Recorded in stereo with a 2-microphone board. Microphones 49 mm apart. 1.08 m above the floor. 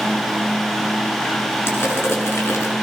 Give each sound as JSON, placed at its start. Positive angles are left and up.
{"t": 1.7, "sound": "crushing", "side_deg": 60, "distance_m": 7.5}